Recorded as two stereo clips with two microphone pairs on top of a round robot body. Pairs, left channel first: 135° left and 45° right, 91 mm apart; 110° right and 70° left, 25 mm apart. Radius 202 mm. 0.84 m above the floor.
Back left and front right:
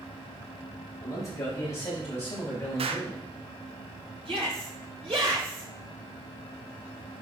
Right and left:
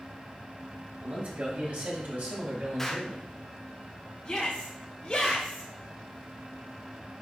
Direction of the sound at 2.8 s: 35° right.